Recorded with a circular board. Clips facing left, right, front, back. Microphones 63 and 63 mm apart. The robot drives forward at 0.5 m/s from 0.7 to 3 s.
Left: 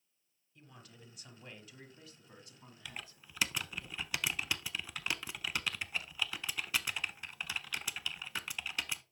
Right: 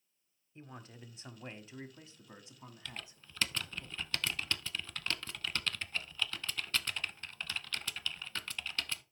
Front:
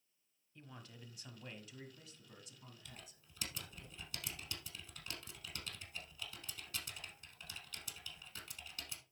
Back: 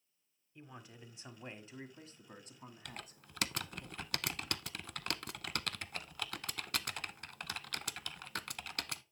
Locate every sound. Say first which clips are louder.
0.6 s a man speaking: right 6 dB, back 3 dB; 115° right, 1.4 m; by 3.9 s 155° right, 2 m
2.9 s typing on a keyboard: left 1 dB, back 8 dB; 165° left, 0.6 m; by 9.0 s 170° left, 0.7 m